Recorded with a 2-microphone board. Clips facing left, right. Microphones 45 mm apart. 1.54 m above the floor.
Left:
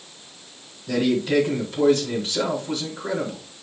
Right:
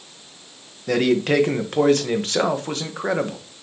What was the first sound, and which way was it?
A man speaking, 65° right (ahead or behind).